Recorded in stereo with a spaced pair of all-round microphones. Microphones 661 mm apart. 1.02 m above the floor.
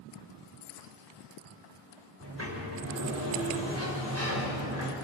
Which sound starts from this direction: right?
A sliding door, at 2.2 s.